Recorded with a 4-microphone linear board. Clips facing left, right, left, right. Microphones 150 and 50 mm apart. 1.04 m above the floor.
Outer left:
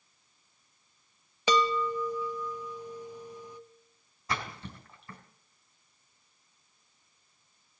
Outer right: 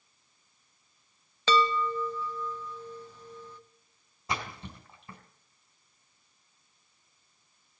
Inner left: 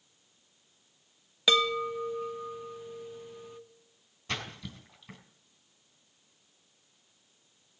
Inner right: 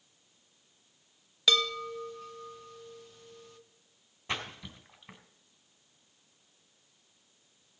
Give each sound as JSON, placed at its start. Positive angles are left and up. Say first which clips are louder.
{"t": 1.5, "sound": "a chime", "louder": "outer right 1 dB, inner left 3 dB", "side_deg": 15, "distance_m": 0.8}
{"t": 4.3, "sound": "a splash", "louder": "even, even", "side_deg": -25, "distance_m": 3.0}